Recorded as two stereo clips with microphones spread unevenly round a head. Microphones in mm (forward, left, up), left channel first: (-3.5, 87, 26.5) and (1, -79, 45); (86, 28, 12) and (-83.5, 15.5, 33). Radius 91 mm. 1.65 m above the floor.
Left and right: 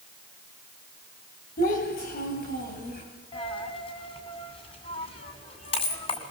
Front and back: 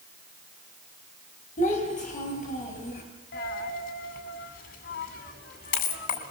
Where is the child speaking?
50° left, 8.5 m; by 3.0 s 55° left, 9.5 m.